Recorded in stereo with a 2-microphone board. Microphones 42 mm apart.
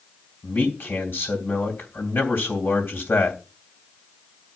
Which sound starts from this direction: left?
A man speaking, at 0.4 s.